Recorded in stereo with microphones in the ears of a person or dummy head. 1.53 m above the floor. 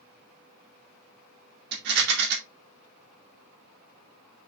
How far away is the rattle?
About 2 m.